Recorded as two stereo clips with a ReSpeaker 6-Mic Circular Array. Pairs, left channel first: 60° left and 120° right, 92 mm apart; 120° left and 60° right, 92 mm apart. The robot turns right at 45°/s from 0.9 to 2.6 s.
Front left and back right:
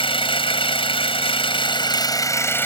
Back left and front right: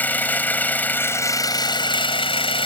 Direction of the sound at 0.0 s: 50° left.